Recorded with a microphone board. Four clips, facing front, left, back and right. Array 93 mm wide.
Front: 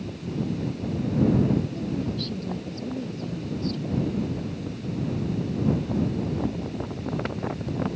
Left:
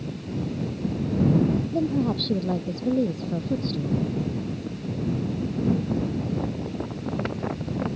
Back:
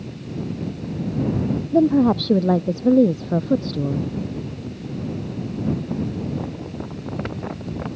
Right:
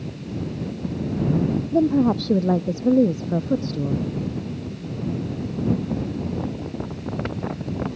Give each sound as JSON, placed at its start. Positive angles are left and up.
{"t": 1.7, "sound": "a woman speaking", "azimuth_deg": -165}